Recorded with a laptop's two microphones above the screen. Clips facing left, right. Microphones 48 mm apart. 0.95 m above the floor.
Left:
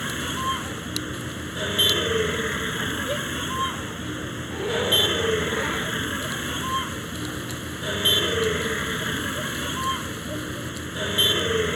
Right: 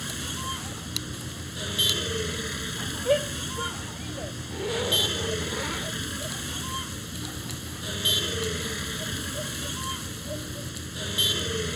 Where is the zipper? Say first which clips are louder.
Left 4 dB; 15° left (ahead or behind).